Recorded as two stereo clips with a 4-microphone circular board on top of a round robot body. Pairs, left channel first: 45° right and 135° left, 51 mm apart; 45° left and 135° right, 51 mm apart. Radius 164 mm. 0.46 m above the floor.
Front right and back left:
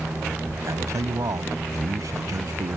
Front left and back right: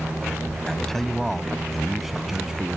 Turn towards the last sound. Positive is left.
turn(degrees=145)